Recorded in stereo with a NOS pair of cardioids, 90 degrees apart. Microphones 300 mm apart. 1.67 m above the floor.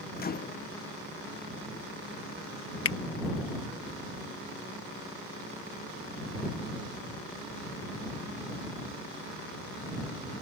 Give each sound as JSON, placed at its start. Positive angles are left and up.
{"t": 0.2, "sound": "a microwave", "azimuth_deg": 30}
{"t": 2.9, "sound": "a finger snap", "azimuth_deg": 45}